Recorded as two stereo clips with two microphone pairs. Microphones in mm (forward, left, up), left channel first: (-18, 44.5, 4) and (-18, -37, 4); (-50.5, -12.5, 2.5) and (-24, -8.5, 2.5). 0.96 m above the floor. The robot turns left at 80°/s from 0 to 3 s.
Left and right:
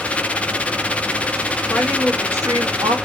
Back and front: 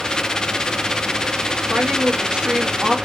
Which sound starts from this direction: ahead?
A woman speaking, at 1.7 s.